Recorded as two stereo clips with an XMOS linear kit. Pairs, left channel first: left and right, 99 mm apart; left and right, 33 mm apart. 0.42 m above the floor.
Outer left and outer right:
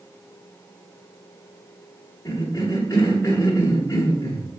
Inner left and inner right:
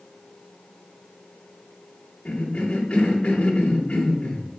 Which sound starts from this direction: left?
A cough, at 2.2 s.